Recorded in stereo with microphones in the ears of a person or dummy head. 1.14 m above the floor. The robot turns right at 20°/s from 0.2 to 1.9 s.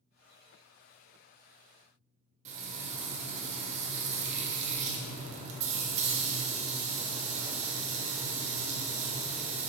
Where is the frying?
30° right (ahead or behind), 1.0 m.